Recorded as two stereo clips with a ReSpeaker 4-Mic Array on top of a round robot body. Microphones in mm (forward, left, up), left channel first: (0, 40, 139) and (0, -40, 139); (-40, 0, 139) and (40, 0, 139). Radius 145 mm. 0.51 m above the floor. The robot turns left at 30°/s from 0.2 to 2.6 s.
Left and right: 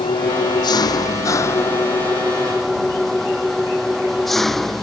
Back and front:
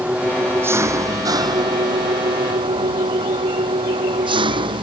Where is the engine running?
75° left; by 4.8 s straight ahead.